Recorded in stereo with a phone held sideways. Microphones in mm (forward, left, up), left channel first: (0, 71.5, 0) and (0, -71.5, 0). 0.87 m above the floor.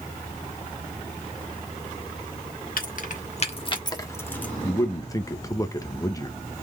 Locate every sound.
2.8 s keys jangling: 70° left (ahead or behind), 1.1 m; by 4.5 s 10° left (ahead or behind), 1.3 m
4.6 s a man speaking: 20° left (ahead or behind), 0.8 m